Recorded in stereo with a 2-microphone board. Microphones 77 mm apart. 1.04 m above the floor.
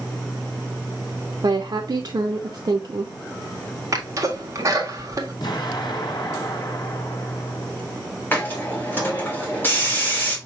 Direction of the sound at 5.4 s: 60° left (ahead or behind).